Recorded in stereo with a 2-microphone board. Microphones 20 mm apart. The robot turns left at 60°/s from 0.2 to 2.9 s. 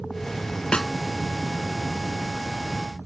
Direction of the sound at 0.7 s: 50° left (ahead or behind).